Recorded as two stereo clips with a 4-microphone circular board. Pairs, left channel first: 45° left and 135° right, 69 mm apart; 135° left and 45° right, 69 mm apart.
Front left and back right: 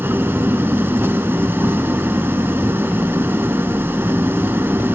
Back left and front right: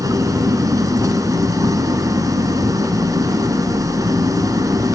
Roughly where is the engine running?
Right.